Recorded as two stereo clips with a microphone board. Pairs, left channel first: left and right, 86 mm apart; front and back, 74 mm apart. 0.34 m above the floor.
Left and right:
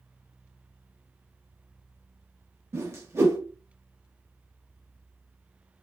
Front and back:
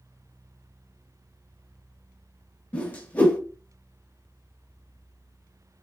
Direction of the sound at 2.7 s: 55° right.